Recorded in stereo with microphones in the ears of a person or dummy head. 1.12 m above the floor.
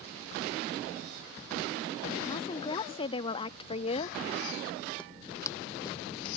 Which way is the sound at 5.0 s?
5° left (ahead or behind).